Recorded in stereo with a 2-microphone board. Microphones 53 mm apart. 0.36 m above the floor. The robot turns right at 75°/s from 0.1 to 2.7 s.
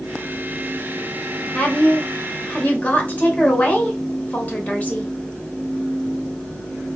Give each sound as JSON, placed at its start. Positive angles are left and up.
{"t": 1.5, "sound": "a woman speaking", "azimuth_deg": 40, "distance_m": 1.2}